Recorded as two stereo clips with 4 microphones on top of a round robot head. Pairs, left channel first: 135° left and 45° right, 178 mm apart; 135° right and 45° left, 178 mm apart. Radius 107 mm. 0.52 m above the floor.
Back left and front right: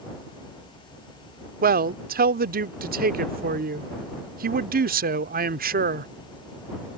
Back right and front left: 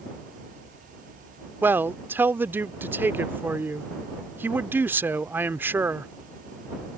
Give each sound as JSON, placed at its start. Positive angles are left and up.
{"t": 1.6, "sound": "a man speaking", "azimuth_deg": -30}